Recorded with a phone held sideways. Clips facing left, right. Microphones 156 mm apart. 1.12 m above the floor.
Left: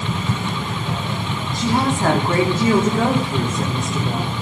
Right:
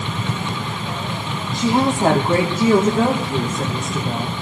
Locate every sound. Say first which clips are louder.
1.5 s a woman speaking: right 2 dB; 20° right (ahead or behind), 2.5 m; by 4.3 s centre (ahead or behind), 3.5 m